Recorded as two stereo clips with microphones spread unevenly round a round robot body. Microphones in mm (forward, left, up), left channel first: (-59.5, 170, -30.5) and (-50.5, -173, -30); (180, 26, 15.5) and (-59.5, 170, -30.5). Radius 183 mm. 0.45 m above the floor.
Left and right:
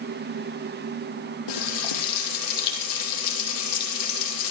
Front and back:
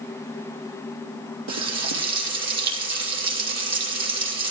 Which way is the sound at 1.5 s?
120° left.